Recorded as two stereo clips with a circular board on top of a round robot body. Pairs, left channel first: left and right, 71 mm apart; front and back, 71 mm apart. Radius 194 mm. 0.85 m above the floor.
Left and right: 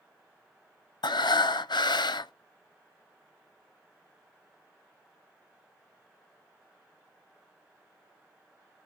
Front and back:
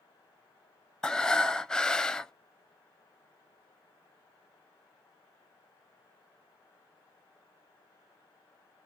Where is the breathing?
80° left, 0.5 m.